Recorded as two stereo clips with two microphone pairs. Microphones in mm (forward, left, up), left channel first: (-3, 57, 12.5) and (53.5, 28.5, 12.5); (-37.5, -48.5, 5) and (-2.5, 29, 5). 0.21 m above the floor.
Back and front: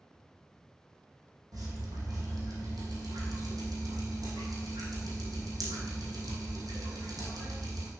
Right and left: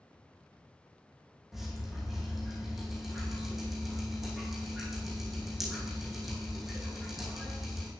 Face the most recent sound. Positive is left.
turn(degrees=-20)